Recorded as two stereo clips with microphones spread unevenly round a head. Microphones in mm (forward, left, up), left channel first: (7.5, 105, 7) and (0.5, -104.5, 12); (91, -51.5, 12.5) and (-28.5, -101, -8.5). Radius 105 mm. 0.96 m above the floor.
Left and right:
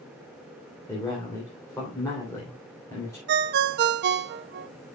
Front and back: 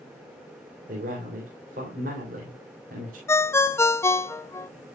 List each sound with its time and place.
0.9 s a man speaking: 165° left, 3 m
3.3 s a ringtone: 50° right, 0.5 m